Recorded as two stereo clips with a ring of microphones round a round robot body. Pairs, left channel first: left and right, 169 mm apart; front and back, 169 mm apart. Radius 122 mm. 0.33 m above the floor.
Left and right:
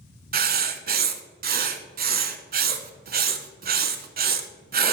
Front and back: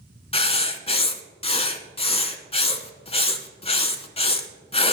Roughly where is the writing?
Ahead right.